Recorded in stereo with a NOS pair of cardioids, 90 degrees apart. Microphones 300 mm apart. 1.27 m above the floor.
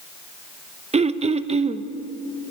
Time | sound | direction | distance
0.9 | throat clearing | 20° right | 0.8 m